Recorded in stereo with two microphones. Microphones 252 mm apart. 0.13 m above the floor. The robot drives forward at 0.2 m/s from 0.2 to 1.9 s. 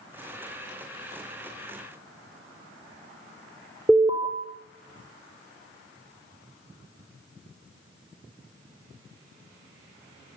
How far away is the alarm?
About 4 m.